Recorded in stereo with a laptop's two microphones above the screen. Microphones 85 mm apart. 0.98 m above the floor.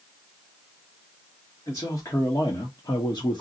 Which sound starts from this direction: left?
A man speaking, at 1.7 s.